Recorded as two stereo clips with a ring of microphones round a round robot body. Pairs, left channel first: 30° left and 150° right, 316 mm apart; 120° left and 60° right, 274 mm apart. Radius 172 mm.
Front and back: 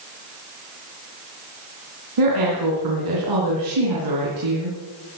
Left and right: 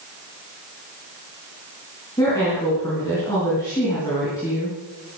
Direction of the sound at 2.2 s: 160° right.